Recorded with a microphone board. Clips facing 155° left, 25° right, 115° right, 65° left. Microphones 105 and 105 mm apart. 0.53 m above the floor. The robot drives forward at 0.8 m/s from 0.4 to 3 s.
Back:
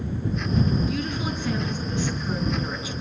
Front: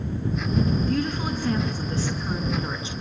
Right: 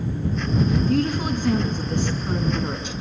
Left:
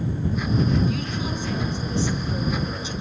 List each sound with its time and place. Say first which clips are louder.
0.9 s a woman speaking: front 2 dB, right 6 dB; 70° right, 6 m; by 2.9 s 85° right, 5.5 m